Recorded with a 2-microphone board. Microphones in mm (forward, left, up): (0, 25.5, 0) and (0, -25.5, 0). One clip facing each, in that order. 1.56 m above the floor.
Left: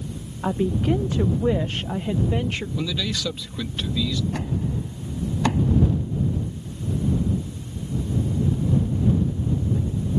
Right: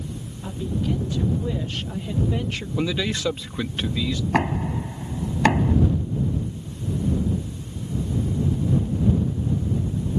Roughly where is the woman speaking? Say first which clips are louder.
Left 5 dB; left.